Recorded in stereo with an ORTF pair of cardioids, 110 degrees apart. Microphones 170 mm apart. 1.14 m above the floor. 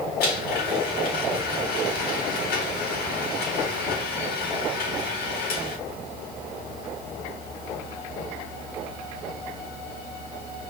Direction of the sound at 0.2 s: 70° left.